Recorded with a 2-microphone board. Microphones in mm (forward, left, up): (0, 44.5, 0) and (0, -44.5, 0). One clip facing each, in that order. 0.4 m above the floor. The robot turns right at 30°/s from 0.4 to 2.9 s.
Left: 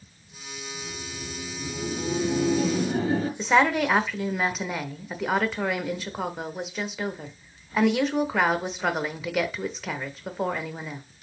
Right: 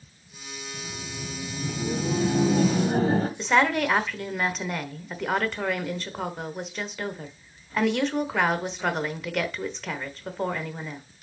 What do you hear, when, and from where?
0.7 s laughter: 120° right, 1.9 m; by 3.3 s 55° right, 1.9 m
3.4 s a woman speaking: 5° left (ahead or behind), 0.9 m